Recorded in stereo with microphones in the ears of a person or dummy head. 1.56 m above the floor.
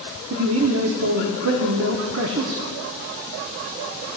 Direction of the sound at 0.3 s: 85° right.